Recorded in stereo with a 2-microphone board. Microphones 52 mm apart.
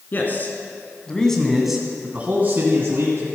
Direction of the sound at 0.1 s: 40° left (ahead or behind).